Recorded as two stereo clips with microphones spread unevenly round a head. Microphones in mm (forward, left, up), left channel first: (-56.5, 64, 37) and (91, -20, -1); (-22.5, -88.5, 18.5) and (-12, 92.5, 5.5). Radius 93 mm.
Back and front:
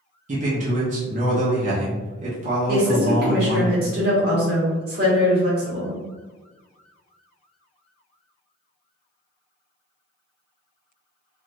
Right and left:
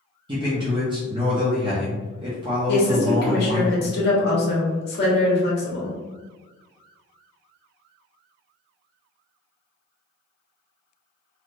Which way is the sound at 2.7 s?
75° right.